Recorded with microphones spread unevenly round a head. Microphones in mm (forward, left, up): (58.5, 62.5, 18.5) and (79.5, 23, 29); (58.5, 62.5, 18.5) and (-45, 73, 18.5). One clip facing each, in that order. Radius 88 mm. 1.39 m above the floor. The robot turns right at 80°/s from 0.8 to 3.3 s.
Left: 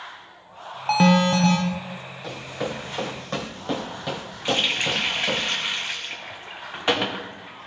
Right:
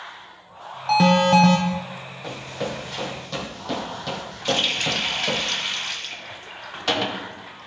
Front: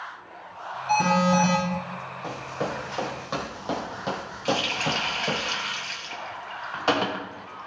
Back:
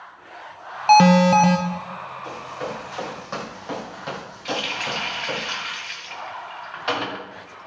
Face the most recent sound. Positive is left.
turn(degrees=50)